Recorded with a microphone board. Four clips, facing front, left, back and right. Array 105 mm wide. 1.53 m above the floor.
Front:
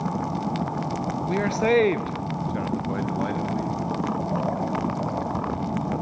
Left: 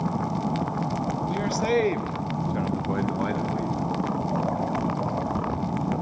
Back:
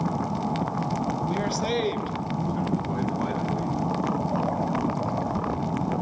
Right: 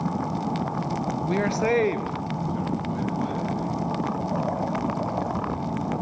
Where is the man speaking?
60° right, 0.6 m; by 3.8 s 60° left, 1.4 m.